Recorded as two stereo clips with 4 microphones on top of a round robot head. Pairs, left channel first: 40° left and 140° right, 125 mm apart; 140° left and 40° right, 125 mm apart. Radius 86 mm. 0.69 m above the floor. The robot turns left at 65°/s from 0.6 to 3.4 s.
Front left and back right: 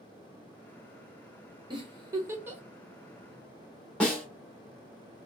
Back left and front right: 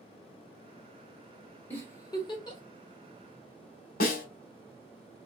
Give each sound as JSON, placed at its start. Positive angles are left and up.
{"t": 1.7, "sound": "a giggle", "azimuth_deg": -155, "distance_m": 1.3}
{"t": 4.0, "sound": "a snare drum", "azimuth_deg": 125, "distance_m": 1.0}